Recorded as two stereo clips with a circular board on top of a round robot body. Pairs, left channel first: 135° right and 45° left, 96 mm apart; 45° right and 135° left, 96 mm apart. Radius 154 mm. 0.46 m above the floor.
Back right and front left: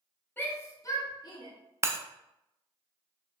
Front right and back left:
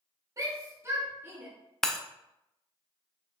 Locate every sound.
0.4 s a shout: 170° left, 1.5 m; by 1.5 s 160° right, 2.0 m
1.8 s breaking glass: 35° left, 0.6 m